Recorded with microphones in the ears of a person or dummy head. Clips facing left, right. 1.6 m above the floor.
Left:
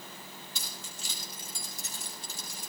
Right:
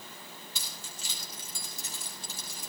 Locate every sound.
0.6 s keys jangling: 80° right, 5 m